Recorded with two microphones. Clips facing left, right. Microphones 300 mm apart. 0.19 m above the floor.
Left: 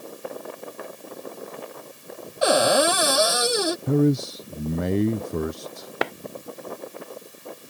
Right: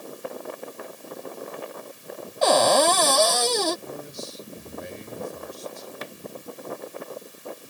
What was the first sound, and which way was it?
A cupboard door, 10° left (ahead or behind).